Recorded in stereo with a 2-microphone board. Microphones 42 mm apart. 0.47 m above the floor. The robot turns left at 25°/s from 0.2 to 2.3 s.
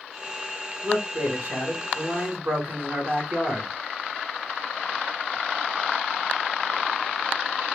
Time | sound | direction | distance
0.8 | a man speaking | 55° right | 1.8 m